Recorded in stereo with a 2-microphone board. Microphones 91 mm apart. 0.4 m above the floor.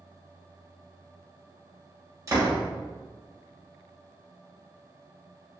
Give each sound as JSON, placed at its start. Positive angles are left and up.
{"t": 2.3, "sound": "a door slam", "side_deg": -35, "distance_m": 1.0}